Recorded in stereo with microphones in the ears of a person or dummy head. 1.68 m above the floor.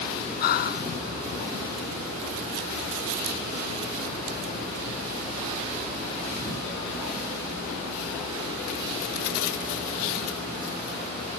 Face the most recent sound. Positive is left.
turn(degrees=55)  # may be behind; listen again after turning